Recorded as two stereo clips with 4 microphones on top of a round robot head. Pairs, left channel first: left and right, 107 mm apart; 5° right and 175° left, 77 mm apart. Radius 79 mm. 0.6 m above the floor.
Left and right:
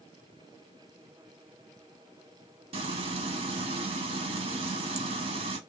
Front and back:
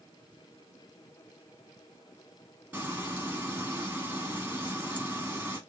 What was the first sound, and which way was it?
Frying, 110° right.